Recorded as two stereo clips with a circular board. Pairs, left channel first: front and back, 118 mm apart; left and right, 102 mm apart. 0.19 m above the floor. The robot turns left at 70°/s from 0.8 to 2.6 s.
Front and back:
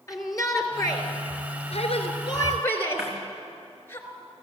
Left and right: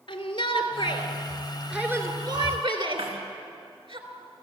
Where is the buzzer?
I don't hear a buzzer.